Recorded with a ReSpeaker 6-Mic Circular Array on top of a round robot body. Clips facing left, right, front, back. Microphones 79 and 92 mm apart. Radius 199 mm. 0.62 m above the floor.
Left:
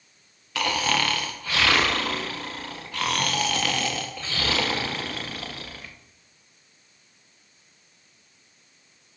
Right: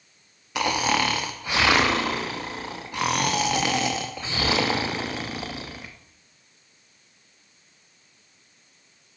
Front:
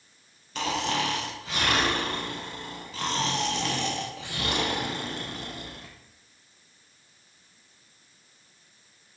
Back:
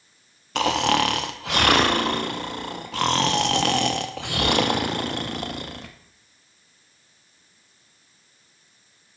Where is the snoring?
160° right, 0.7 m.